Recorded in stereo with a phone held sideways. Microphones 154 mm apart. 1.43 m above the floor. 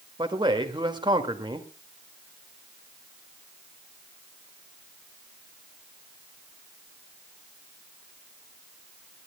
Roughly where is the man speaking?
Right.